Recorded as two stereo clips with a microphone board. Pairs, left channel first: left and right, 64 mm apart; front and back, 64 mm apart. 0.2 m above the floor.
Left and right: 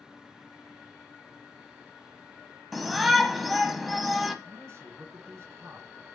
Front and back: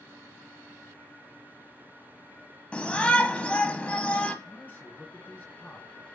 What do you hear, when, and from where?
2.7 s a shout: straight ahead, 1.0 m
4.5 s a man speaking: 55° right, 2.0 m